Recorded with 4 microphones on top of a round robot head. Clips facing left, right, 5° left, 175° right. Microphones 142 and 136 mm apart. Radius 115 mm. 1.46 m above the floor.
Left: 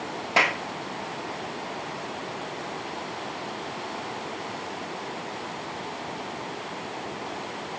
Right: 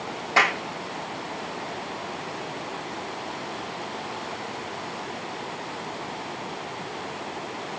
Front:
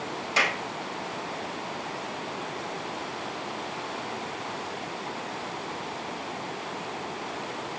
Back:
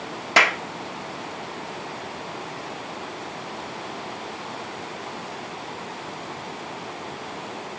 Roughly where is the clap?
Behind.